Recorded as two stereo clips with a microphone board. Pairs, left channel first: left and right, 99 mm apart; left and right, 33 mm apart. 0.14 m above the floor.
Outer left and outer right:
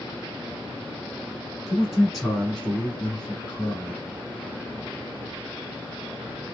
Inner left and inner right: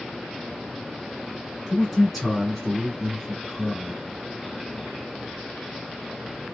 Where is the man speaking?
5° right (ahead or behind), 1.6 m; by 4.0 s 25° left (ahead or behind), 1.5 m.